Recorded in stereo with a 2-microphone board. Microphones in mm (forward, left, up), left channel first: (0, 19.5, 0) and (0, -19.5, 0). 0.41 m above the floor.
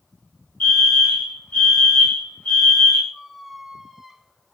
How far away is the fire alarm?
About 3.5 m.